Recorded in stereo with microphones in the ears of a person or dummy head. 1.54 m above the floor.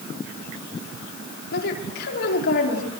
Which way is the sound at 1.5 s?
60° left (ahead or behind).